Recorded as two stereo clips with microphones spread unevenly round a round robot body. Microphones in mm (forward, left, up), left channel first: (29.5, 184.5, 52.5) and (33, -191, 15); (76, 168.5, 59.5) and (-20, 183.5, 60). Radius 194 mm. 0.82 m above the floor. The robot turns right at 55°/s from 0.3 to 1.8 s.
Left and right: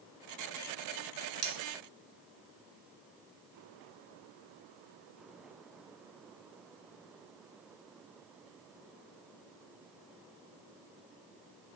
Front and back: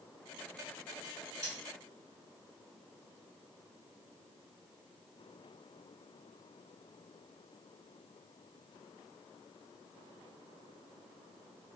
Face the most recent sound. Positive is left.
turn(degrees=-40)